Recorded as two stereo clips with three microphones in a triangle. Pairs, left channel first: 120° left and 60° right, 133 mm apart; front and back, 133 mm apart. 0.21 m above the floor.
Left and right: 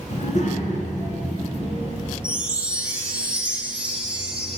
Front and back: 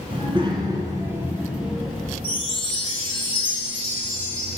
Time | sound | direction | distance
0.1 | a child speaking | 140° left | 2 m
2.2 | a chime | 15° left | 1.2 m